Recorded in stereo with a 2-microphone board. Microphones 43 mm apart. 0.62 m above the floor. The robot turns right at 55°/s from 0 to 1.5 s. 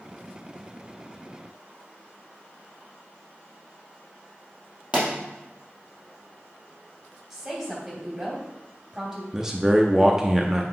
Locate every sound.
4.9 s a pop: 30° right (ahead or behind), 3 m
7.3 s a woman speaking: 15° right (ahead or behind), 3 m
9.3 s a man speaking: 15° right (ahead or behind), 0.6 m